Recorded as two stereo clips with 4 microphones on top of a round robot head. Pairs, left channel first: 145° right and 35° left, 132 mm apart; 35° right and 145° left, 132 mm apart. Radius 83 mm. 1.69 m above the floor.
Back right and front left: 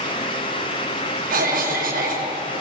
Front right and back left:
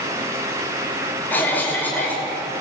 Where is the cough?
45° left, 5.5 m.